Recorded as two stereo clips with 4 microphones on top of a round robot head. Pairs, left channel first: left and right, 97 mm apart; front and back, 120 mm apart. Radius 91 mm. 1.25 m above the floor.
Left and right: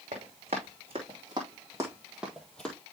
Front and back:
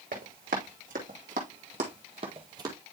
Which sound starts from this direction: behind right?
Running footsteps, at 0.1 s.